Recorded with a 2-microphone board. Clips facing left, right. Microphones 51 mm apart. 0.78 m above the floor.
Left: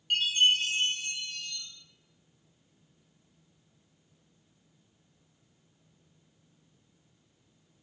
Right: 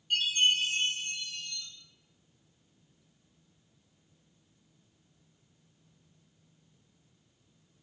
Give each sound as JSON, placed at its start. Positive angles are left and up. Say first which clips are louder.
{"t": 0.1, "sound": "a chime", "louder": "left 2 dB", "side_deg": 70, "distance_m": 0.6}